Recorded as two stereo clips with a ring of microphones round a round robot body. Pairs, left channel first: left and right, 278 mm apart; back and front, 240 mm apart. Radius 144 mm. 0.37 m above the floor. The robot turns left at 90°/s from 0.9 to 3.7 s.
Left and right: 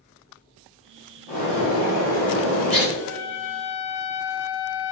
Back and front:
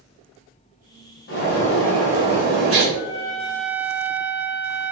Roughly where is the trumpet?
Behind left.